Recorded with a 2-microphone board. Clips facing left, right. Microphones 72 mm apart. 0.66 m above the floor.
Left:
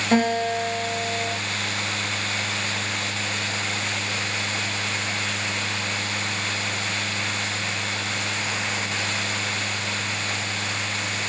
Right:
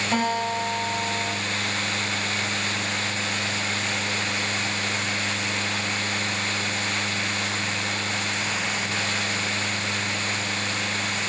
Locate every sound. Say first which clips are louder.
0.1 s a guitar: left 4 dB; 45° left (ahead or behind), 7 m